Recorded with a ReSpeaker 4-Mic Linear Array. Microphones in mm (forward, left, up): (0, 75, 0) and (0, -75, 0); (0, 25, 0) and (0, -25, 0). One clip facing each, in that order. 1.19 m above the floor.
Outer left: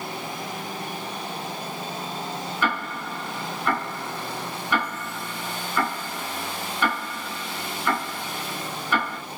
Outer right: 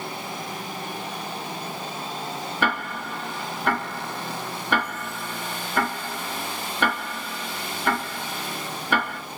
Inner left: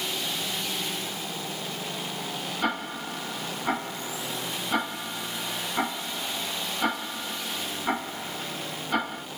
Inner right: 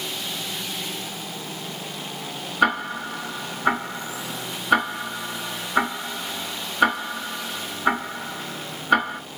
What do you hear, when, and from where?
2.6 s ticking: 65° right (ahead or behind), 4 m